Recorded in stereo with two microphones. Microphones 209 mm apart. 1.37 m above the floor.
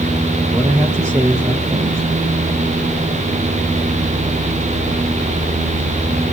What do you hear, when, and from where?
0.5 s a man speaking: 15° right (ahead or behind), 1.3 m